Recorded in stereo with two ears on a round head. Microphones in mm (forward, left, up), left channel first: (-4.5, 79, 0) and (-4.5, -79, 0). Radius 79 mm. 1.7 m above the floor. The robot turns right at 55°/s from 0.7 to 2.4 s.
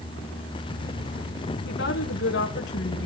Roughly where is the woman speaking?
Left.